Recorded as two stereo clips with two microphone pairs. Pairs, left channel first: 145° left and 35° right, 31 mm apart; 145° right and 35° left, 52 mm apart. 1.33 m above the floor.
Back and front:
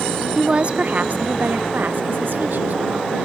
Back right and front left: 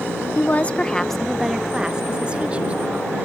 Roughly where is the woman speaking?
Right.